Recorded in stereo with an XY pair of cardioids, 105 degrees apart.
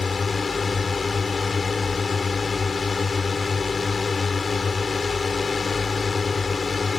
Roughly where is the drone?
Ahead left.